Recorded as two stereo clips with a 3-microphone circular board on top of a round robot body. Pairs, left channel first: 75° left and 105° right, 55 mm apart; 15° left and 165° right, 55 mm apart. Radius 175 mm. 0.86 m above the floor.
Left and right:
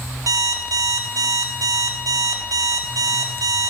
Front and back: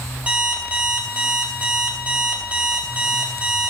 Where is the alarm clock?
100° right, 0.6 m.